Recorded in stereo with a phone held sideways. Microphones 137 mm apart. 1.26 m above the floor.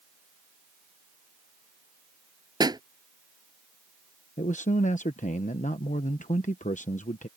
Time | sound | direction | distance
2.6 | a pop | 30° right (ahead or behind) | ?
4.4 | a man speaking | 65° left (ahead or behind) | ?